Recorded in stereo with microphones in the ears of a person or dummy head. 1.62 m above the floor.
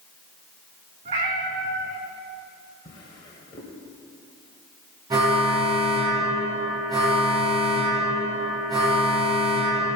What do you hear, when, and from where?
1.1 s a cat meowing: 25° right (ahead or behind), 1.7 m
2.9 s a drawer: 25° left (ahead or behind), 2 m
5.1 s an alarm: 25° right (ahead or behind), 5 m